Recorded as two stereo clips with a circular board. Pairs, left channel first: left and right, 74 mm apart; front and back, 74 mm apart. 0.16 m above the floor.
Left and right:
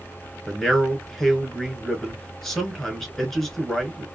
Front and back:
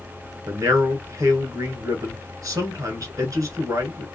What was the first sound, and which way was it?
A man speaking, 170° left.